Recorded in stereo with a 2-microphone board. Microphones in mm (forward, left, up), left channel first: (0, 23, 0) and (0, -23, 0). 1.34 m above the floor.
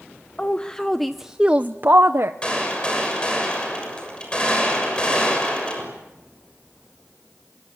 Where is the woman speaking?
25° left (ahead or behind), 1.0 m; by 2.3 s 65° right (ahead or behind), 0.9 m.